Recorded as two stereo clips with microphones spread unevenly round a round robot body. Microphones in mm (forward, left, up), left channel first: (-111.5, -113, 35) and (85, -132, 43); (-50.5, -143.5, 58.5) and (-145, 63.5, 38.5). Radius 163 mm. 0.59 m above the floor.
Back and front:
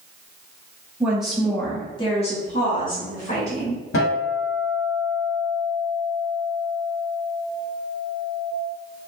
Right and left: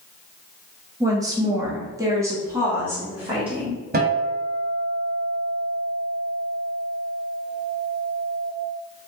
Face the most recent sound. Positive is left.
turn(degrees=165)